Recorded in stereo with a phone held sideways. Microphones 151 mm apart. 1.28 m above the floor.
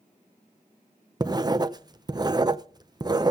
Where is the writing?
25° right (ahead or behind), 0.5 m.